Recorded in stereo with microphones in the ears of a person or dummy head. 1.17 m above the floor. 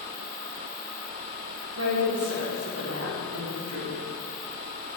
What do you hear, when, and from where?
1.8 s a woman speaking: 80° right, 3.5 m